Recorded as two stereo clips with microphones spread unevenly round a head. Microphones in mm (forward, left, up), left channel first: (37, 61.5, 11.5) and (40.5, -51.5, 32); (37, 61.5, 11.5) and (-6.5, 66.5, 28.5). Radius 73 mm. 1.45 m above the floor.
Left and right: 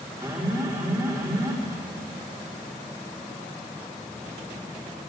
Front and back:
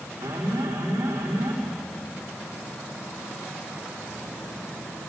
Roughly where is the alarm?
Behind.